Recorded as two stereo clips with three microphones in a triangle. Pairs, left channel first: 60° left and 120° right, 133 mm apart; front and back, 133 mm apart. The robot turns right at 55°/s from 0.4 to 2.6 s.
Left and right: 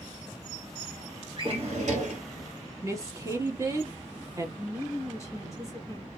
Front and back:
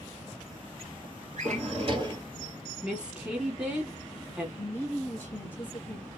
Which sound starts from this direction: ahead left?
A woman speaking, at 4.6 s.